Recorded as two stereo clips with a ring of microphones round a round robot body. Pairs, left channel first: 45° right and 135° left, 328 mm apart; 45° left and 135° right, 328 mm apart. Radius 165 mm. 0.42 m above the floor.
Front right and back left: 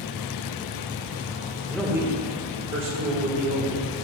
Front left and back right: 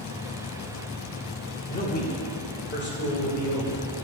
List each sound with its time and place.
1.7 s a man speaking: 30° left, 1.0 m; by 4.0 s 105° left, 2.5 m